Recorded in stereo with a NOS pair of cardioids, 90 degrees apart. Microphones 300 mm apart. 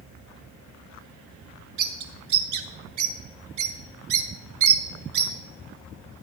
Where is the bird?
65° right, 1.7 m.